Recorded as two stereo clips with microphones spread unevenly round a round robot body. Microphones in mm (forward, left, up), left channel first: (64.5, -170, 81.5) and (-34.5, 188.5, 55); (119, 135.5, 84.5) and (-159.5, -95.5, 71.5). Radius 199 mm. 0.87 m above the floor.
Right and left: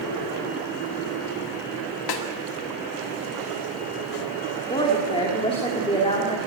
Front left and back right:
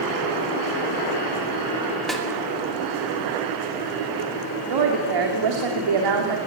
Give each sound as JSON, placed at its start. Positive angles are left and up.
{"t": 2.1, "sound": "a snare drum", "azimuth_deg": -50, "distance_m": 2.0}
{"t": 4.7, "sound": "a woman speaking", "azimuth_deg": -150, "distance_m": 2.5}